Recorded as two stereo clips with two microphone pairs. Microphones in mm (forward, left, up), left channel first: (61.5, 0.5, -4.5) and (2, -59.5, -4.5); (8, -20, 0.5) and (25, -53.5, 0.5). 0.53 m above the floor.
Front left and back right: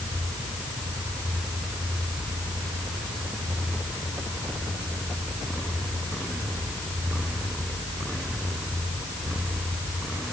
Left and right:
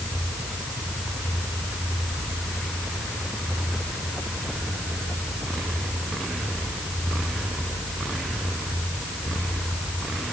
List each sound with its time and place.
Only background noise.